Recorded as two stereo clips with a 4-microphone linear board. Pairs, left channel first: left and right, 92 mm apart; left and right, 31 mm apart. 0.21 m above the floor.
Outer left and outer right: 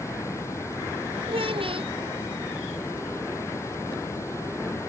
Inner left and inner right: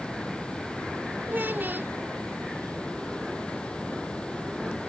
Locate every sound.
0.0 s running water: 30° left (ahead or behind)
1.3 s a child speaking: 75° right (ahead or behind)